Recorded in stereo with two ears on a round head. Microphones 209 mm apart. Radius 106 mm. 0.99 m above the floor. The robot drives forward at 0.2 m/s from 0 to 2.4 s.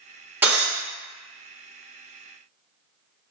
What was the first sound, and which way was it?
Breaking glass, 10° right (ahead or behind).